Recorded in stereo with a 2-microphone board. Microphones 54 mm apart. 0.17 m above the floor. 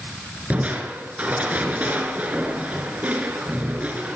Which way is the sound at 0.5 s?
30° right (ahead or behind).